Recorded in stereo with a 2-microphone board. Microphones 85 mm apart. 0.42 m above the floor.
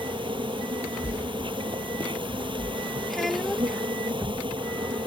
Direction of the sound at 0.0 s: 80° right.